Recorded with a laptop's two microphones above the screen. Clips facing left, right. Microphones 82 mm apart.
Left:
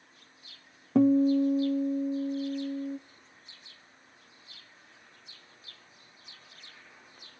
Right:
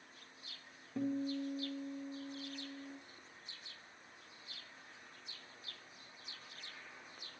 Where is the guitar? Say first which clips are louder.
Left 16 dB; 80° left, 0.5 m.